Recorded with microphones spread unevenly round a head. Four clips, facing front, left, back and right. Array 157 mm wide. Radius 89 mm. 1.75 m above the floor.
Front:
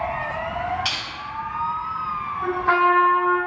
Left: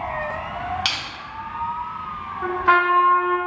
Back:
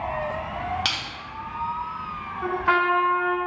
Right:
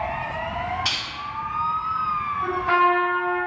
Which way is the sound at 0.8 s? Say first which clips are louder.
Left 1 dB, front 1 dB; 140° left.